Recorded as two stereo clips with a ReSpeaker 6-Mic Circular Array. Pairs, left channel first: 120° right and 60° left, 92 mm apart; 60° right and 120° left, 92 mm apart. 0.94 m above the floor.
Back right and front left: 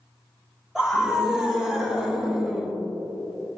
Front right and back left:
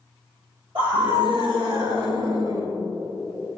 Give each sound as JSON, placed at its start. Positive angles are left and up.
{"t": 0.8, "sound": "a scream", "azimuth_deg": 140, "distance_m": 3.0}